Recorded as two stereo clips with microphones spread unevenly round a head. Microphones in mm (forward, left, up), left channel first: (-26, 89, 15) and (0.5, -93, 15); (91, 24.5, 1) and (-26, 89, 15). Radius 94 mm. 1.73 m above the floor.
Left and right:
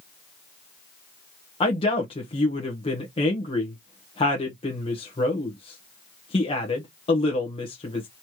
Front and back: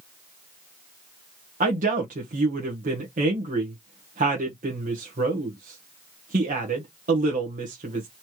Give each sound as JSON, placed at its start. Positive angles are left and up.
{"t": 1.6, "sound": "a woman speaking", "azimuth_deg": 160, "distance_m": 1.2}